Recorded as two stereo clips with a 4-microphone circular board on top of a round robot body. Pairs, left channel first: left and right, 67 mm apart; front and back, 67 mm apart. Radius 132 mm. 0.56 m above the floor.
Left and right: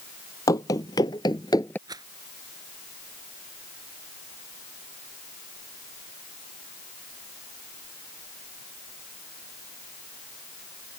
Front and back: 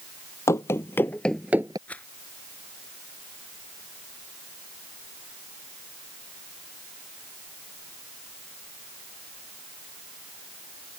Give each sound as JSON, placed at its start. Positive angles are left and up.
{"t": 0.5, "sound": "running footsteps", "azimuth_deg": 50}
{"t": 1.9, "sound": "a rattle", "azimuth_deg": -70}